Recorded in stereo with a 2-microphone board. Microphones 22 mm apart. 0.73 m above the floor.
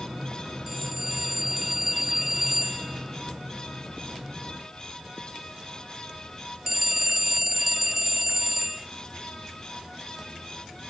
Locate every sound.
0.7 s a phone ringing: 15° right (ahead or behind)